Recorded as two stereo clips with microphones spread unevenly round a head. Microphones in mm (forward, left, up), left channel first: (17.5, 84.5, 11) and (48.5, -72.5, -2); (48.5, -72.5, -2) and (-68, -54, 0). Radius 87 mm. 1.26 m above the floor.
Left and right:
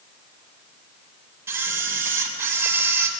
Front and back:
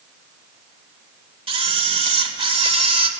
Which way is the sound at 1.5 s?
155° right.